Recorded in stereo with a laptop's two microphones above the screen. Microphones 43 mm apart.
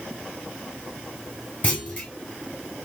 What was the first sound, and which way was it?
A clunk, 40° left (ahead or behind).